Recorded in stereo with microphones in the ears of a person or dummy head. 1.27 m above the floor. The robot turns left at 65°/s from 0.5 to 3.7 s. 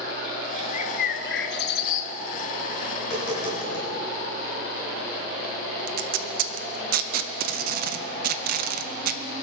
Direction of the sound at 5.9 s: 55° right (ahead or behind).